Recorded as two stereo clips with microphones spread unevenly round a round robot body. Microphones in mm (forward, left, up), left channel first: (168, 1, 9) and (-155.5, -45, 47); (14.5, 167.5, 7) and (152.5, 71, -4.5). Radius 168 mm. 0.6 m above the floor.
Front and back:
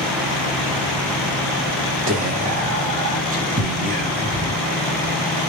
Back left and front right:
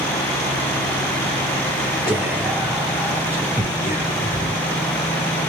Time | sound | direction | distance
2.1 | whispering | 110° right | 0.8 m